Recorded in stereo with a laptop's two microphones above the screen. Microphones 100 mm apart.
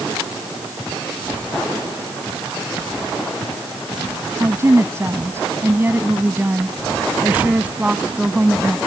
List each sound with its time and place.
4.4 s a woman speaking: 30° right (ahead or behind); by 8.8 s 10° right (ahead or behind)